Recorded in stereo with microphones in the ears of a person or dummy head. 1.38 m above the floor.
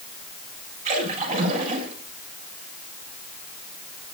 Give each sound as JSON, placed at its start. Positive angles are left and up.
{"t": 0.8, "sound": "a splash", "side_deg": -45, "distance_m": 8.0}